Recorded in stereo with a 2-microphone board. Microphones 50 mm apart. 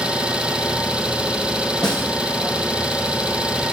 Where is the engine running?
20° right (ahead or behind), 1.5 m.